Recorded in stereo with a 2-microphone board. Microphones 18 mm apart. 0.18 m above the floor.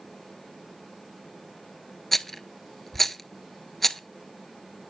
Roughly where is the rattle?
Centre.